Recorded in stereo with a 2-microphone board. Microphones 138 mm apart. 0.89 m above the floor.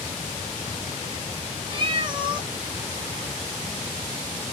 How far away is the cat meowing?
About 0.6 m.